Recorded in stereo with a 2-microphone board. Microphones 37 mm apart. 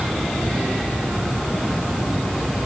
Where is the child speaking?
I don't hear a child speaking.